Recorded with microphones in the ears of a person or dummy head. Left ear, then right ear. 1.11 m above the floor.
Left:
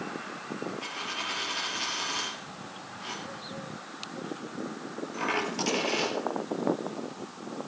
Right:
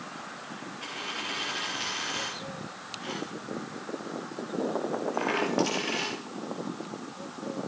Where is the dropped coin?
15° left (ahead or behind), 4 m.